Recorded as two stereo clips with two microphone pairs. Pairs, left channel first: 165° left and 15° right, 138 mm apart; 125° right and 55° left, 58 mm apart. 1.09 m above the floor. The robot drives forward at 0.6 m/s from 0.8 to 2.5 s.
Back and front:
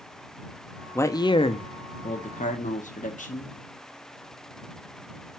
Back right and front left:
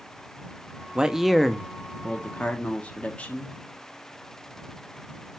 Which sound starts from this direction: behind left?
A man speaking, at 0.9 s.